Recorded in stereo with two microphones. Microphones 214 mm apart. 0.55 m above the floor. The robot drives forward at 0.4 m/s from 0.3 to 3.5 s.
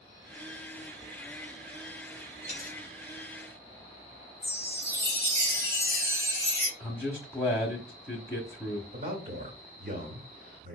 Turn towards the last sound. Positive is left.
turn(degrees=-40)  # may be behind; listen again after turning